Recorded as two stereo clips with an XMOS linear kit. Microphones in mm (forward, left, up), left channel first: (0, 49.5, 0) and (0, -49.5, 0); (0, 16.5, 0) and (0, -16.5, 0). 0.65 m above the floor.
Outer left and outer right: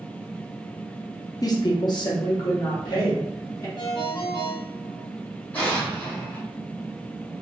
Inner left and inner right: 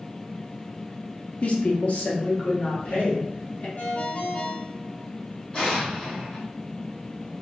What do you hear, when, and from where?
1.4 s a woman speaking: 40° left (ahead or behind), 0.7 m; by 3.7 s 45° left (ahead or behind), 1.8 m
3.8 s a ringtone: 50° left (ahead or behind), 1.1 m
5.5 s an explosion: 15° left (ahead or behind), 1.5 m